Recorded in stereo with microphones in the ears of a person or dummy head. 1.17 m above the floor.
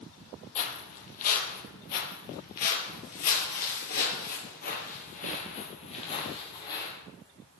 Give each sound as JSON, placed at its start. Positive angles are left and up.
{"t": 0.6, "sound": "footsteps", "side_deg": 40, "distance_m": 2.5}